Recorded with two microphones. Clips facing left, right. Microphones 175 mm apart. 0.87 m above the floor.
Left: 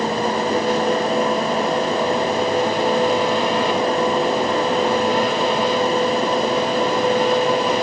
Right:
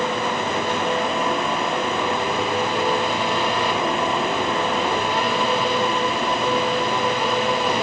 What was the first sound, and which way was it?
Only background noise.